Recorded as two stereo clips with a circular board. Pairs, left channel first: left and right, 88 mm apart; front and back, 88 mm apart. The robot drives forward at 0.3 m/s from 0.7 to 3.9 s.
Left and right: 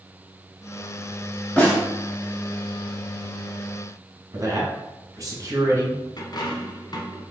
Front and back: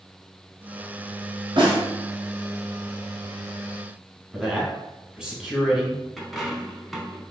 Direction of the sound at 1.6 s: 165° left.